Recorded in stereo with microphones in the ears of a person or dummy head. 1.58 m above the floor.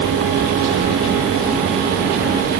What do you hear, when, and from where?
Only background noise.